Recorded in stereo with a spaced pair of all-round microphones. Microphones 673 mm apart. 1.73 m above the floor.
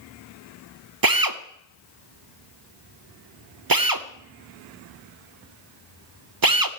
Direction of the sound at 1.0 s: 35° right (ahead or behind).